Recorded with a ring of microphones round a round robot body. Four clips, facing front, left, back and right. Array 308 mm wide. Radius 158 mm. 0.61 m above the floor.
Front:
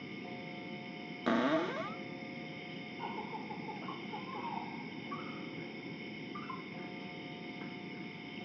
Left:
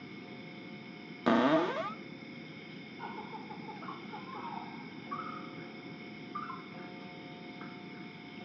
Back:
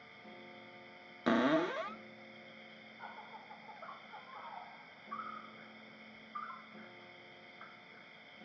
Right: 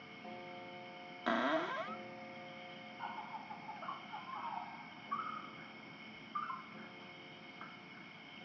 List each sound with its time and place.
0.0 s an insect: 35° left
1.3 s a cupboard door: 95° left